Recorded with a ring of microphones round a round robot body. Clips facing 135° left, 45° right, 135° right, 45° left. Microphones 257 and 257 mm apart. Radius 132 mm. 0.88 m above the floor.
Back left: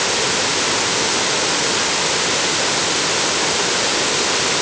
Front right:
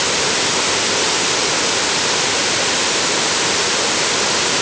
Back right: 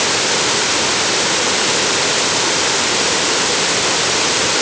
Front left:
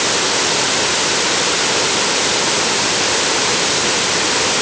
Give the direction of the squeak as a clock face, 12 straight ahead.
I don't hear a squeak.